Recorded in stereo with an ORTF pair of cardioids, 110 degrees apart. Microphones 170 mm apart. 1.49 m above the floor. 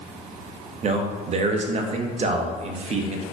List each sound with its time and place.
0.8 s a man speaking: 40° right, 0.6 m